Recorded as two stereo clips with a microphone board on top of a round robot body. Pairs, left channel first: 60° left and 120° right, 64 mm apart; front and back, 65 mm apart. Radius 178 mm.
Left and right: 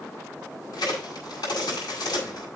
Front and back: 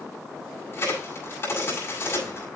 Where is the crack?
50° left, 6.5 m.